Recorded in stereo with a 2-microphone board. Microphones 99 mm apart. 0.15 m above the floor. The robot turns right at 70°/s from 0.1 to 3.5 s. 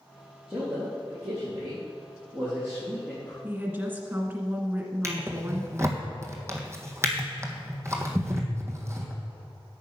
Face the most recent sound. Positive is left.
turn(degrees=-30)  # may be behind; listen again after turning